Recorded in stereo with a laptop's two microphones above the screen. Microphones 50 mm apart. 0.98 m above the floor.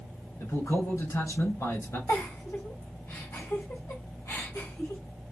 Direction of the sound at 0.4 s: 80° left.